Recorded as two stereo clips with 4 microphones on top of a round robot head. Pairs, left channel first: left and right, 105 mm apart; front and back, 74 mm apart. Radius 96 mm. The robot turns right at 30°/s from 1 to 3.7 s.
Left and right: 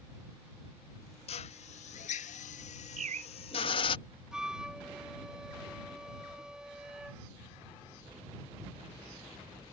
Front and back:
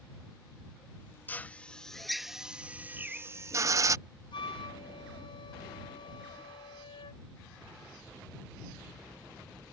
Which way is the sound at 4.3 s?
5° right.